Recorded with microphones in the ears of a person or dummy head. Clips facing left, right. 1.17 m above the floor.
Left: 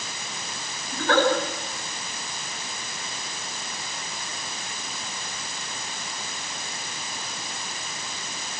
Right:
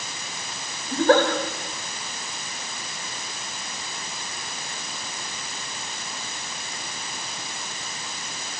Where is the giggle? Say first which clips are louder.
Right 5 dB; 35° right (ahead or behind), 4 m.